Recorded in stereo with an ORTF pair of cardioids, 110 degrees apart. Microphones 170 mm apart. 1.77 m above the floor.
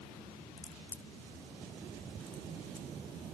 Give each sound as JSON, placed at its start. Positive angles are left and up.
{"t": 0.6, "sound": "a crack", "azimuth_deg": 15, "distance_m": 0.7}